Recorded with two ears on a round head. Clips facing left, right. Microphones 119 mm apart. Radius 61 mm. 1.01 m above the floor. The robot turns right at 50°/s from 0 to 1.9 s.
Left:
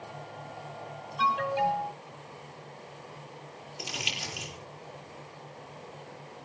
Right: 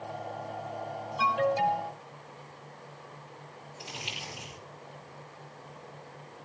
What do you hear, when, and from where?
1.2 s an alarm: 170° right, 5 m; by 1.9 s 135° right, 5 m
3.8 s crumpling: 85° left, 9 m